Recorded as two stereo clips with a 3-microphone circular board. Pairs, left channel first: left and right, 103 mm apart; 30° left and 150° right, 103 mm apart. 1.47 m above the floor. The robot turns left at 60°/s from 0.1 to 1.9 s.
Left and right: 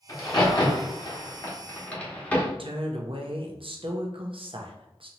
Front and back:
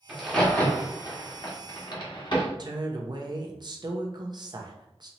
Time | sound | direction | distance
0.1 | a crack | 125° left | 1.2 m
2.6 | a woman speaking | 110° right | 0.7 m